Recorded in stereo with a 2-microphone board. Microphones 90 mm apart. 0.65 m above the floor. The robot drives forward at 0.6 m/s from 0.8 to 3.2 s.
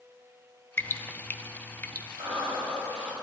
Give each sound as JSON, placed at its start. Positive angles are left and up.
{"t": 0.8, "sound": "dripping", "side_deg": 25, "distance_m": 0.6}
{"t": 2.2, "sound": "breathing", "side_deg": -75, "distance_m": 4.5}